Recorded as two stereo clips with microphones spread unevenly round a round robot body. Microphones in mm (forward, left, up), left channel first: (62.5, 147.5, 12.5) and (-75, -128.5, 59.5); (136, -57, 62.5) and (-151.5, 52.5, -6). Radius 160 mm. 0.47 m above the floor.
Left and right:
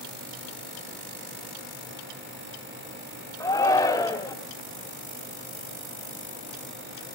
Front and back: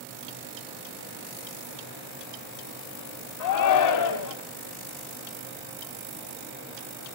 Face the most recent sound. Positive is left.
turn(degrees=-5)